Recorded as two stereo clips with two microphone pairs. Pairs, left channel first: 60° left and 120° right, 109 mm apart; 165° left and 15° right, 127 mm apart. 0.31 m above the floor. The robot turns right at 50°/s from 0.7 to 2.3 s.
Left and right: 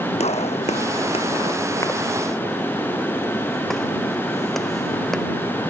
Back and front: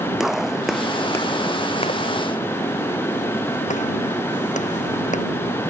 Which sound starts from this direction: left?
A gunshot, at 0.2 s.